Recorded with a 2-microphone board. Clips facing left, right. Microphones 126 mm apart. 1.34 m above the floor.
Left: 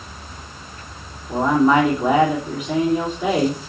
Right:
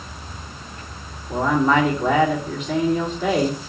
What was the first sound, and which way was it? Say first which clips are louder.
A man speaking: left 3 dB; 10° left (ahead or behind).